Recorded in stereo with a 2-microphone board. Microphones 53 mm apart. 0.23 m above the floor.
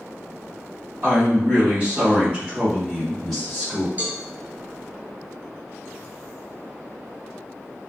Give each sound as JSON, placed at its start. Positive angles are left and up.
{"t": 1.0, "sound": "a woman speaking", "side_deg": -35, "distance_m": 1.8}
{"t": 4.0, "sound": "a cowbell", "side_deg": -30, "distance_m": 0.7}